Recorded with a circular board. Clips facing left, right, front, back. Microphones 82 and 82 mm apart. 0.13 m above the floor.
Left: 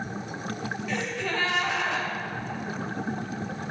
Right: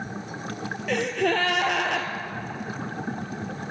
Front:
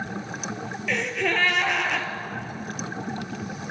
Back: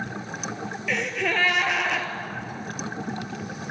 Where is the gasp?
90° right, 1.1 m.